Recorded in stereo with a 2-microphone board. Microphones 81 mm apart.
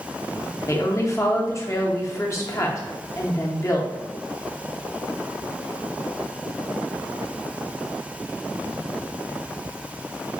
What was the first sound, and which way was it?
A woman speaking, 35° left (ahead or behind).